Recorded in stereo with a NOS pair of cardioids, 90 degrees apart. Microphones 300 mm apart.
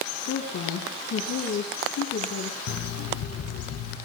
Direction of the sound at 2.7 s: 65° left.